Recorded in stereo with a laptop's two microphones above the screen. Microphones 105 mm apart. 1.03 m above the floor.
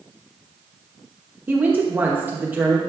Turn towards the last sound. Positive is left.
turn(degrees=-20)  # may be behind; listen again after turning